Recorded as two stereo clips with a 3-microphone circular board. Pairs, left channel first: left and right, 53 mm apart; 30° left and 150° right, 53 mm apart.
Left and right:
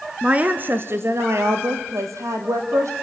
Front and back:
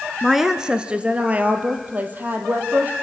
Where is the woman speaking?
65° right, 1.4 m; by 2.9 s 100° right, 4.5 m.